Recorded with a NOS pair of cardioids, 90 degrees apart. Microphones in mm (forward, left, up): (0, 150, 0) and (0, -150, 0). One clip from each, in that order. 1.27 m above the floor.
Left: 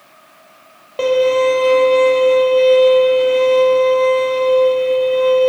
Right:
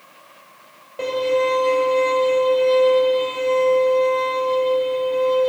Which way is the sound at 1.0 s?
45° left.